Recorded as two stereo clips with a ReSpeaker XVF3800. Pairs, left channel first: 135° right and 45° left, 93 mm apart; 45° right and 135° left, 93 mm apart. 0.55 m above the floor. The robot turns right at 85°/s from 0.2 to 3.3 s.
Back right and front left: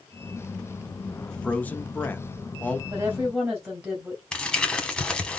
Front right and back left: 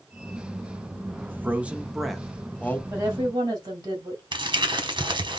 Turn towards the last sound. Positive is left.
turn(degrees=145)